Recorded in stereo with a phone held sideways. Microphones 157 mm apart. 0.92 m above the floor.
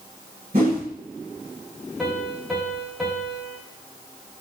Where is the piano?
Centre (ahead or behind), 3 m.